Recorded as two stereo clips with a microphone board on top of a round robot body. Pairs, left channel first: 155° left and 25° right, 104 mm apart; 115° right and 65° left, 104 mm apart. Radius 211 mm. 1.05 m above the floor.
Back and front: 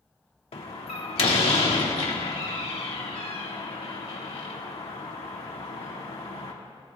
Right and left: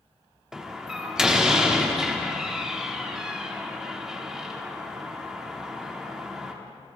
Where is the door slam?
150° left, 1.9 m.